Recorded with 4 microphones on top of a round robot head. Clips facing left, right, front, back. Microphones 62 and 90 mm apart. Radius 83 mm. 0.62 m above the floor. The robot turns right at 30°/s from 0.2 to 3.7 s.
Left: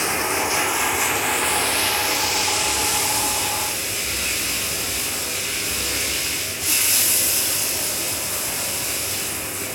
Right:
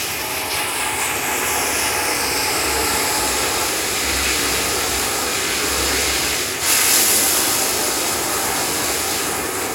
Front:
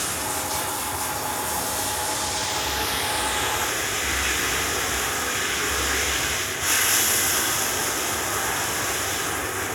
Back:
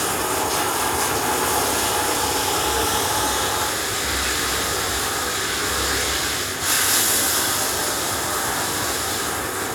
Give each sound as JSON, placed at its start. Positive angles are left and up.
{"t": 0.0, "sound": "running water", "azimuth_deg": 150, "distance_m": 2.0}